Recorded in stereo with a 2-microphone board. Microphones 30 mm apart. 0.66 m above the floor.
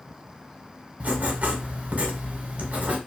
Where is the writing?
60° right (ahead or behind), 0.9 m.